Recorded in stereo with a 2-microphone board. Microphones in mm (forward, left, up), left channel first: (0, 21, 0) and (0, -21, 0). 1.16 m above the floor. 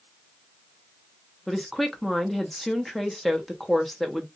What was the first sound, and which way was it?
A woman speaking, 5° left (ahead or behind).